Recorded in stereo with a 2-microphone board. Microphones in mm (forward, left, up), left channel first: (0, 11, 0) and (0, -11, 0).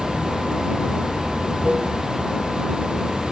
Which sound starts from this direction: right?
Running water, at 0.0 s.